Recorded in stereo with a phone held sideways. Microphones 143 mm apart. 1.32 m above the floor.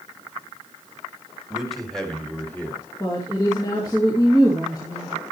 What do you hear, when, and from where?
1.5 s a man speaking: 5° right (ahead or behind), 2 m; by 2.8 s 15° left (ahead or behind), 2.5 m
3.0 s a woman speaking: 30° left (ahead or behind), 2.5 m